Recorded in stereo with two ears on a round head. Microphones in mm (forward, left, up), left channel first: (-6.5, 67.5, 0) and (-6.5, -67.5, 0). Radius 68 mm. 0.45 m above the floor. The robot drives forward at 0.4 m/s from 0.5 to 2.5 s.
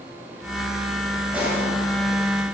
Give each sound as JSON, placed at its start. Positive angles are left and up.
{"t": 1.3, "sound": "a pop", "side_deg": -10, "distance_m": 4.5}